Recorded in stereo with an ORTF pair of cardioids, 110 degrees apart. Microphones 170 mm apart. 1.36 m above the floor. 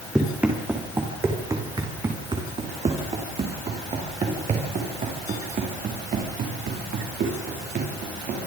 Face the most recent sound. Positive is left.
turn(degrees=-60)